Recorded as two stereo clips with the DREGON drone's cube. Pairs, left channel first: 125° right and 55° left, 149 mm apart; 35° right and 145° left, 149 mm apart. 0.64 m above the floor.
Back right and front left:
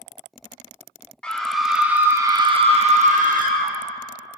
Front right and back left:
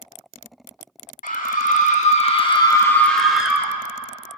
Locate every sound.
1.2 s a scream: 40° right, 1.4 m; by 3.7 s 70° left, 1.3 m